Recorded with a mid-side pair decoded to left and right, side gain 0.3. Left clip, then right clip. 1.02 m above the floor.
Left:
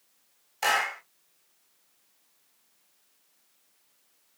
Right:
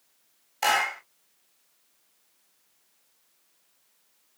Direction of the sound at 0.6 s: 25° right.